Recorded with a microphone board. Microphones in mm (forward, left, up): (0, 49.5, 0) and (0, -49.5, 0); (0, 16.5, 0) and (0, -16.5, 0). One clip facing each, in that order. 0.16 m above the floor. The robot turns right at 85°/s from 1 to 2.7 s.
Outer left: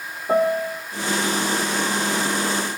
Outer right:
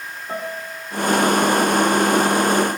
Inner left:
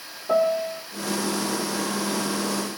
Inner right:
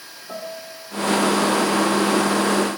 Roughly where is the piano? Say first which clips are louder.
Outer left 11 dB, inner left 12 dB; left.